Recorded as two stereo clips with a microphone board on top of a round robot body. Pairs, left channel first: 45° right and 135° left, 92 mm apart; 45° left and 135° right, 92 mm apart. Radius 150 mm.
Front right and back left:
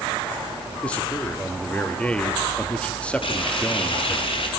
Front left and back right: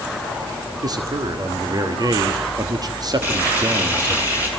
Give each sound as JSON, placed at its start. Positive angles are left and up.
{"t": 0.8, "sound": "a man speaking", "azimuth_deg": -120, "distance_m": 1.7}
{"t": 3.2, "sound": "frying", "azimuth_deg": -65, "distance_m": 6.5}